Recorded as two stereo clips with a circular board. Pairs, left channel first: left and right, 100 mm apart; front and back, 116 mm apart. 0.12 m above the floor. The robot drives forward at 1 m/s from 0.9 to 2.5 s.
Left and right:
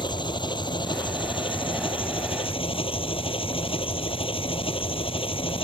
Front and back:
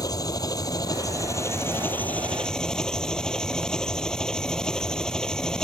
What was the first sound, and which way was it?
An engine running, 55° left.